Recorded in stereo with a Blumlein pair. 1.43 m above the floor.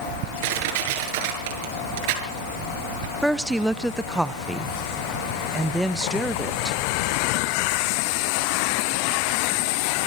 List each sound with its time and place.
0.4 s crushing: 45° right, 7 m
3.2 s a woman speaking: 5° right, 1.0 m